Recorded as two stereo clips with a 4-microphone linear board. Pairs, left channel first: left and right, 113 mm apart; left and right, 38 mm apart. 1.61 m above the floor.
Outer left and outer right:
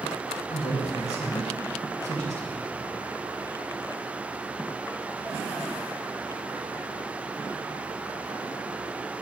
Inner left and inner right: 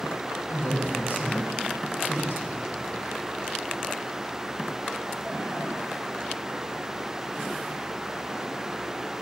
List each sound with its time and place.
0.5 s a man speaking: 75° left (ahead or behind), 3.5 m